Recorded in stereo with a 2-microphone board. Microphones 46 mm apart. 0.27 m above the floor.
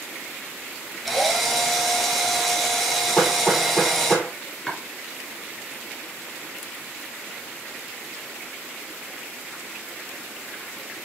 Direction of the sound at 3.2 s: 25° left (ahead or behind).